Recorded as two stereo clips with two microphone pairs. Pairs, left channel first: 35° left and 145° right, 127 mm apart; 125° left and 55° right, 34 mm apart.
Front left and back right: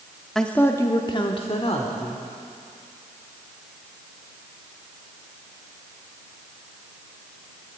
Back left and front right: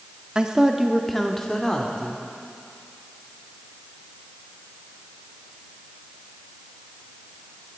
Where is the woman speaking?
50° right, 0.8 m; by 2.2 s 65° left, 1.5 m.